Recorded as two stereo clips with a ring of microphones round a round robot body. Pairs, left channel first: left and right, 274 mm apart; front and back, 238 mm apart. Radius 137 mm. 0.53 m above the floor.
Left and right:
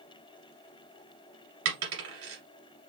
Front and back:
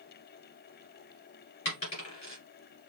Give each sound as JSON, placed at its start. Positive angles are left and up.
{"t": 1.6, "sound": "a dropped coin", "azimuth_deg": -70, "distance_m": 2.0}